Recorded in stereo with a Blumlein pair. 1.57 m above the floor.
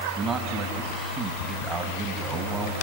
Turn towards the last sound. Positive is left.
turn(degrees=-20)